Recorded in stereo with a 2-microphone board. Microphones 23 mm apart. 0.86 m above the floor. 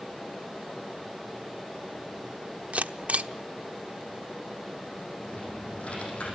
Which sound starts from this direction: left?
Typing on a keyboard, at 5.2 s.